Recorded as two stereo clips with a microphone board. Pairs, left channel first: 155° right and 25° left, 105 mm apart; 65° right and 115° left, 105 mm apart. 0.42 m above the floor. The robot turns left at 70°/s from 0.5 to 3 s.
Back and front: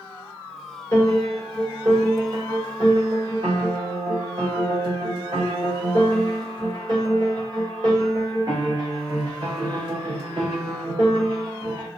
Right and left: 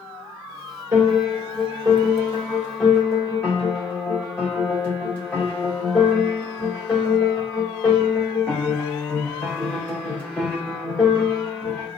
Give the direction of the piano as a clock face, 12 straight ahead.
7 o'clock.